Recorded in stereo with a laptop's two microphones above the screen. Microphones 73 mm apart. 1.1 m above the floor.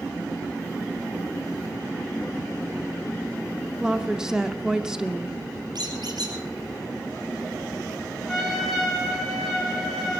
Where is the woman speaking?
10° right (ahead or behind), 0.6 m.